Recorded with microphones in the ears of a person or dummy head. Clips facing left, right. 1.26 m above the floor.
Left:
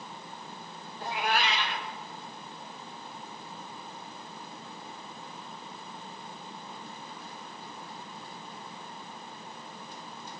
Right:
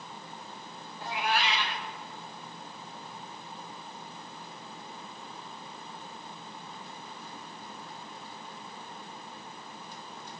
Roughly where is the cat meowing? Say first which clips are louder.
Left 1 dB; left.